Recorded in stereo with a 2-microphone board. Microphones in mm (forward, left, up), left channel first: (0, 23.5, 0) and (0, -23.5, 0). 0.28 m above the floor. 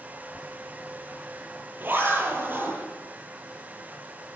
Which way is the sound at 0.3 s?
45° right (ahead or behind).